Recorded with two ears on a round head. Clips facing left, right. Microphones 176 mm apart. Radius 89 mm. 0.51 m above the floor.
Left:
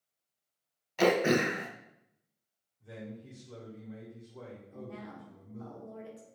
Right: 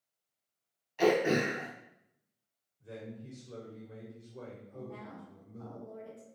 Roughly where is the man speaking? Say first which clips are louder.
Even; centre.